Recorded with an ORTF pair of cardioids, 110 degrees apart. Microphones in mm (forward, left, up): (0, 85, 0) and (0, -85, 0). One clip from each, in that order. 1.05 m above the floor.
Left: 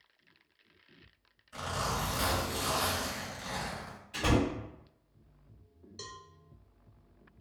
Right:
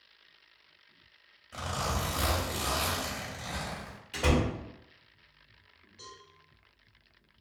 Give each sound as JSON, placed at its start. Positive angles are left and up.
{"t": 1.5, "sound": "a zipper", "azimuth_deg": -60, "distance_m": 1.3}
{"t": 4.1, "sound": "a door slam", "azimuth_deg": -65, "distance_m": 1.3}
{"t": 6.0, "sound": "a cowbell", "azimuth_deg": 50, "distance_m": 0.5}